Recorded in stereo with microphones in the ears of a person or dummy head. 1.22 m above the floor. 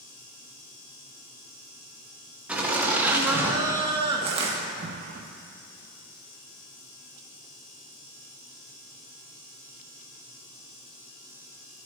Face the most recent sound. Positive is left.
turn(degrees=-35)  # may be behind; listen again after turning